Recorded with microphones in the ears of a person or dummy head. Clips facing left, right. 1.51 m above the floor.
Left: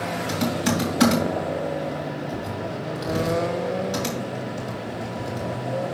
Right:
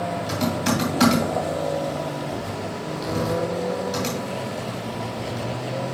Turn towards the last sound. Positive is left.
turn(degrees=5)  # may be behind; listen again after turning